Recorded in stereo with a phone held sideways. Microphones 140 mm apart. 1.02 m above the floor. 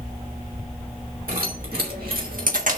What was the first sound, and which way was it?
Keys jangling, 80° right.